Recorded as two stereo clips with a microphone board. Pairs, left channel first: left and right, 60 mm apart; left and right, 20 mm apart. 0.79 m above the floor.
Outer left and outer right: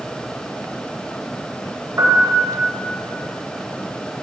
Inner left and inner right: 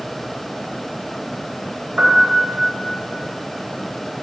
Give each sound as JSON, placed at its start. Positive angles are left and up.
{"t": 2.0, "sound": "a piano", "side_deg": -50, "distance_m": 3.0}